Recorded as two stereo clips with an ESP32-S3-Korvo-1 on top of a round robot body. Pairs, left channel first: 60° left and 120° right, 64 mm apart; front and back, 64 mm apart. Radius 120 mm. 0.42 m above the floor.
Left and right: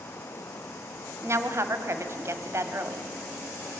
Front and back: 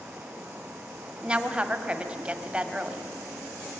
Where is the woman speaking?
110° right, 1.6 m.